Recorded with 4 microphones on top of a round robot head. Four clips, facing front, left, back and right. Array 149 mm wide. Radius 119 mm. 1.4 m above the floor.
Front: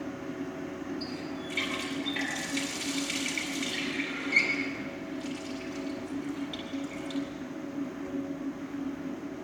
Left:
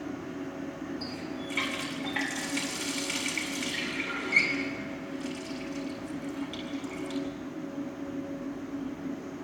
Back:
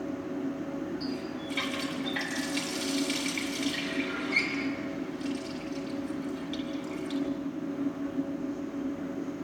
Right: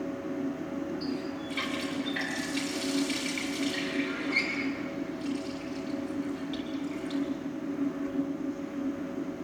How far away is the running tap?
About 8 m.